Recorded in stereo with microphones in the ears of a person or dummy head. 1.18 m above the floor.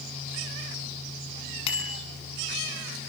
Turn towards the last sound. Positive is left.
turn(degrees=35)  # may be behind; listen again after turning